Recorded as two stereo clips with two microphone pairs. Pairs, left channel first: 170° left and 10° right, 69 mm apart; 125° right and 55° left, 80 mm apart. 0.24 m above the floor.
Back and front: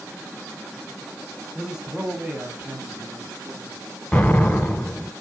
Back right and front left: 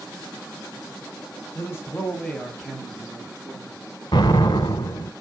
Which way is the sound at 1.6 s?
85° right.